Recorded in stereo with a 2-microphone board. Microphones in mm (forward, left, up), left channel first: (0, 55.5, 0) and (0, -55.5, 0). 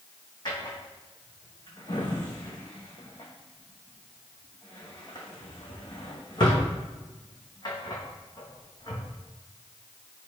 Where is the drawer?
40° left (ahead or behind), 2 m.